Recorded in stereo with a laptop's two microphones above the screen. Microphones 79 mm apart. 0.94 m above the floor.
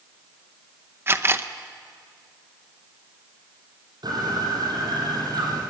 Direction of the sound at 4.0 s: 60° right (ahead or behind).